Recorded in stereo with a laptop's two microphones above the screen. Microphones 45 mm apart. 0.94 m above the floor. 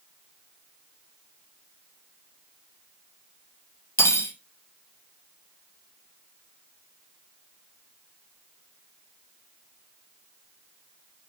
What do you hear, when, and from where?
4.0 s cutlery clinking: 85° left, 0.6 m